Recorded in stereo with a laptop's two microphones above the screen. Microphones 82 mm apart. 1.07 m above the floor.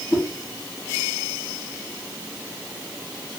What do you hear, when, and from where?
0.1 s a whoosh: 40° left (ahead or behind), 0.9 m